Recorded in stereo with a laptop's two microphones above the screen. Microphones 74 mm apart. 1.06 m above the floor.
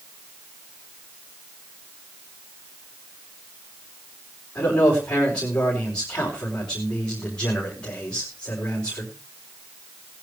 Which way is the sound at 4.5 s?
15° left (ahead or behind).